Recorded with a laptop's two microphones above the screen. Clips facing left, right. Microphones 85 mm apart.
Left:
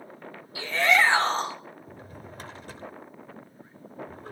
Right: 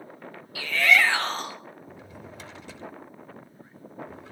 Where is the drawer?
45° left (ahead or behind), 1.1 m.